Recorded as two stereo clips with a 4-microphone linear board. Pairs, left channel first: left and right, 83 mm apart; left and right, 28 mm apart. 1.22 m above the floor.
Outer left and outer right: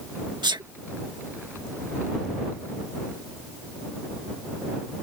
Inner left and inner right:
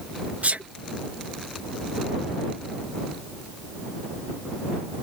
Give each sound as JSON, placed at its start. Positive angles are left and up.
{"t": 0.4, "sound": "a sneeze", "side_deg": -65}